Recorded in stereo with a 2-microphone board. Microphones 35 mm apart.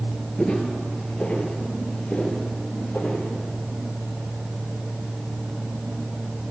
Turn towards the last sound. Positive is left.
turn(degrees=60)  # may be behind; listen again after turning